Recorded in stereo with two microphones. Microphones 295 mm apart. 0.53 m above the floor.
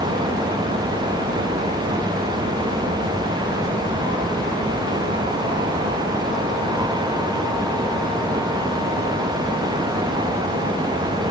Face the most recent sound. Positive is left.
No sound to turn to.